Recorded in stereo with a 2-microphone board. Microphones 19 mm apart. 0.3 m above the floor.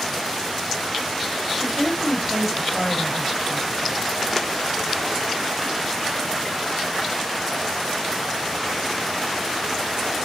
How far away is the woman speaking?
About 1.2 m.